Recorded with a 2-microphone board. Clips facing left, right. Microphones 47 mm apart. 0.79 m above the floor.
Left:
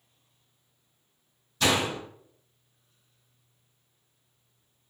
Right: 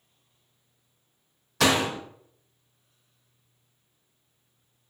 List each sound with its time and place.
1.6 s a door slam: 85° right, 0.5 m